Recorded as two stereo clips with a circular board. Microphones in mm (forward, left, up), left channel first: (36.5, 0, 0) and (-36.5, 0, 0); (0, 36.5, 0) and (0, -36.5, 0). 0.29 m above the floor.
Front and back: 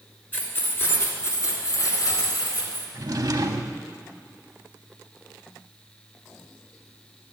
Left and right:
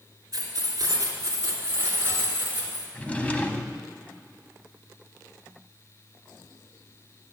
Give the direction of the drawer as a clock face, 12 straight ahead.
7 o'clock.